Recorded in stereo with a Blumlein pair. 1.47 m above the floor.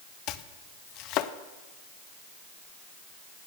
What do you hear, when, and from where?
0.3 s chopping: 40° left, 0.6 m